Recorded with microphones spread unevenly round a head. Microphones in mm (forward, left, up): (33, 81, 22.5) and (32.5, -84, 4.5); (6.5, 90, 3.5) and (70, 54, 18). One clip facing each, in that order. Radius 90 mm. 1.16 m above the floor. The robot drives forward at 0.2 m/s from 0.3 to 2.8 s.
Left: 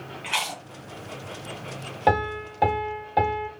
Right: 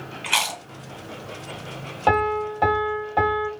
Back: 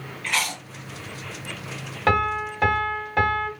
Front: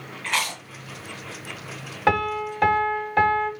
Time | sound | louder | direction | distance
0.2 | chewing | right 3 dB, even | 80° right | 1.5 m
2.1 | a piano | right 3 dB, even | 35° left | 1.0 m